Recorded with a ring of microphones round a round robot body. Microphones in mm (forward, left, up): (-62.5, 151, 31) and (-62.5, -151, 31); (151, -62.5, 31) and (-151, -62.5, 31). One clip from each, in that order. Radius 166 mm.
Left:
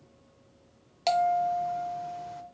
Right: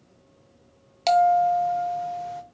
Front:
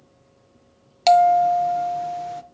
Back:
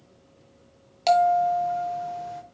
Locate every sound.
1.1 s a bell: 20° right, 0.5 m